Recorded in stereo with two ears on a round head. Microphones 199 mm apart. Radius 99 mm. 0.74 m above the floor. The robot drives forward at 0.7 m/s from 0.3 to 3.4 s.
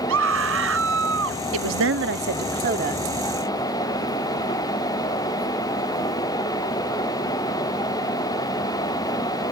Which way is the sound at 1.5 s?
65° right (ahead or behind).